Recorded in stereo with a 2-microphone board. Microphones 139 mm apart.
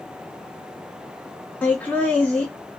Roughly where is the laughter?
Centre.